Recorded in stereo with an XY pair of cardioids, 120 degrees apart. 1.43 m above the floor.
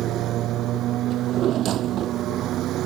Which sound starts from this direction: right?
A lawn mower, at 0.0 s.